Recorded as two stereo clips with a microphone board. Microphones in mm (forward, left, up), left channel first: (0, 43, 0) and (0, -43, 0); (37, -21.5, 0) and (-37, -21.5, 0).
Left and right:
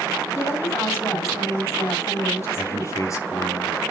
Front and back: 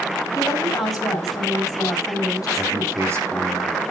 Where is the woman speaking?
35° left, 5.5 m.